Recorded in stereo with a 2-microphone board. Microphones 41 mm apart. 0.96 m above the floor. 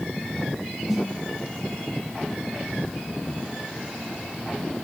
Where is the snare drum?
Centre (ahead or behind), 6 m.